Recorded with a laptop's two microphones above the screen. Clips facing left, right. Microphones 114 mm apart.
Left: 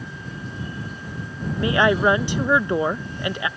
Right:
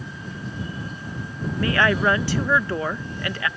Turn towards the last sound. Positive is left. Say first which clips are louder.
# left 2 dB
turn(degrees=20)  # may be behind; listen again after turning